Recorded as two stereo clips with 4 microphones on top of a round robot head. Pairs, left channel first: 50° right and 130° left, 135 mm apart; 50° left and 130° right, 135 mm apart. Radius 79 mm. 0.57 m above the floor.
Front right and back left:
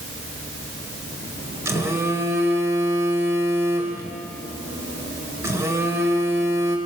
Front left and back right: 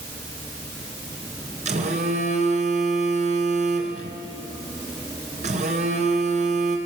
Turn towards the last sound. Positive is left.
turn(degrees=-160)